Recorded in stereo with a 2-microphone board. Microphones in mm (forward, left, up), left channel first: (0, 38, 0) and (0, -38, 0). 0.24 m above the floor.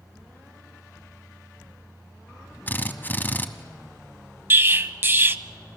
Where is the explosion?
30° right (ahead or behind), 0.7 m.